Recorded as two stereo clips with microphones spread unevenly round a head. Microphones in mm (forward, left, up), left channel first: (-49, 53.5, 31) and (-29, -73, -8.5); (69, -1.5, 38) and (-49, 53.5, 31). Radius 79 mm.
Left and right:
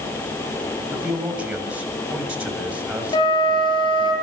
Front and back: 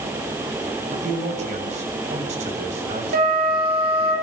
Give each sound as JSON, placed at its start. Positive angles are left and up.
{"t": 0.9, "sound": "a man speaking", "azimuth_deg": -160, "distance_m": 7.0}
{"t": 3.1, "sound": "a flute", "azimuth_deg": 150, "distance_m": 8.5}